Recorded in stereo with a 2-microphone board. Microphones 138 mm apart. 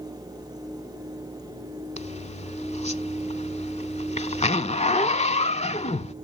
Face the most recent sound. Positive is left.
turn(degrees=55)  # may be behind; listen again after turning